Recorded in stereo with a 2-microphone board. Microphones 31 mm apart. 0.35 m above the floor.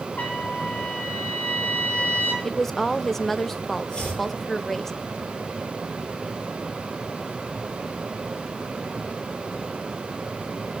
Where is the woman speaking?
10° left (ahead or behind), 0.8 m.